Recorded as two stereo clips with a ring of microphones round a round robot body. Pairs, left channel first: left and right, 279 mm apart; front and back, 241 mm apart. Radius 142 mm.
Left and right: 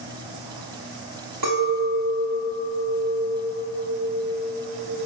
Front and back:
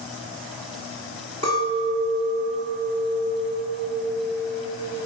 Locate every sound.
1.4 s a clink: 110° right, 1.2 m